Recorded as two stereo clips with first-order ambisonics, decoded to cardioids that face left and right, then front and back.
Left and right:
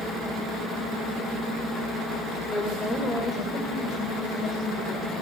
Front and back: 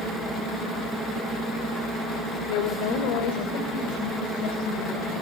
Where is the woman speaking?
5° left, 2 m; by 5.2 s 20° left, 6 m.